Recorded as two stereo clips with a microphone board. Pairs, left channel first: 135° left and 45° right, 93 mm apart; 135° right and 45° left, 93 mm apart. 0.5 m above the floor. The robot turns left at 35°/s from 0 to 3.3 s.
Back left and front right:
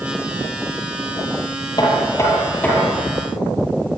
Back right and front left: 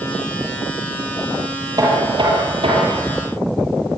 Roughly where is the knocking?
Left.